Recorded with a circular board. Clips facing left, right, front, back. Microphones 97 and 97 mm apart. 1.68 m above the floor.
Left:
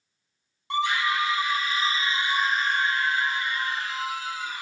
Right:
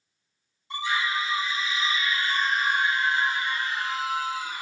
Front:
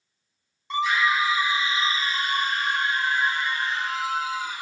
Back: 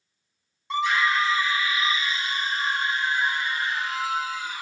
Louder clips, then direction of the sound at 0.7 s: Left 3 dB, even; 90° left.